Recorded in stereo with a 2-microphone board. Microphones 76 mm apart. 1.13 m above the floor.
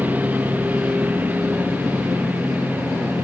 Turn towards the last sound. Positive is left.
turn(degrees=-20)  # may be behind; listen again after turning